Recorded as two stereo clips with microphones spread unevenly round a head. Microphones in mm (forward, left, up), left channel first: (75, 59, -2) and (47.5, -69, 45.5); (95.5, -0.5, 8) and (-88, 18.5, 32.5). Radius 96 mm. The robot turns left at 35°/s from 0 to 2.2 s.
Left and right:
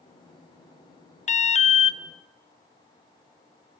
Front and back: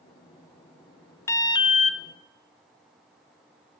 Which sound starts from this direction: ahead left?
An alarm, at 1.3 s.